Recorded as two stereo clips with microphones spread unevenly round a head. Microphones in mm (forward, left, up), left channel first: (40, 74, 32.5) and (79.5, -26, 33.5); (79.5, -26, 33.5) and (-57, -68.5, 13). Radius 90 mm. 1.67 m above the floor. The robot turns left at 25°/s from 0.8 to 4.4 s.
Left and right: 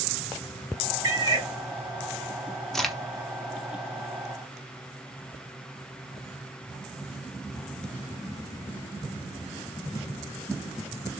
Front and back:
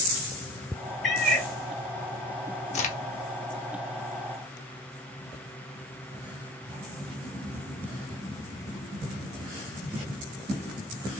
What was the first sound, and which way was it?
A cat meowing, 50° right.